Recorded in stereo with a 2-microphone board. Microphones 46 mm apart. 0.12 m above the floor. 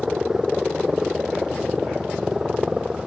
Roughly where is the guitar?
I don't hear a guitar.